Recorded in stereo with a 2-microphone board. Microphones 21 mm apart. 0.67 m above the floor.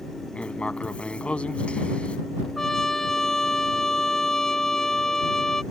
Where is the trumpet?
25° left (ahead or behind).